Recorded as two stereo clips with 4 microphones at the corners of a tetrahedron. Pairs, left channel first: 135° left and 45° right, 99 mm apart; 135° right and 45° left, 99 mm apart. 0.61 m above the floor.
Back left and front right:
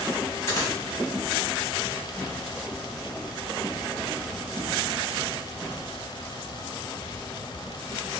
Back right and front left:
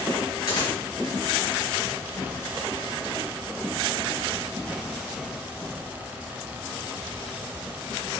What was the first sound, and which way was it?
A dropped coin, 165° right.